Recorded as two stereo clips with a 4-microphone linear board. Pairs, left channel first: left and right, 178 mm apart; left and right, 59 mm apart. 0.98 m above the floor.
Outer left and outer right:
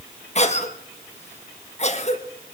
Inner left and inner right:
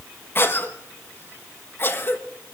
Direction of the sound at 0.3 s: 40° left (ahead or behind).